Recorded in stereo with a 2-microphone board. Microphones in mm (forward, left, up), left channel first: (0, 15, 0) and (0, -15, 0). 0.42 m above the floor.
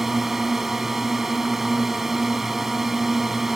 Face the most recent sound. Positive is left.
turn(degrees=-15)  # may be behind; listen again after turning